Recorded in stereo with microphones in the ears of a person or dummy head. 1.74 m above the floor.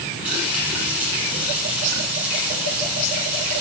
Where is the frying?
5° right (ahead or behind), 6 m.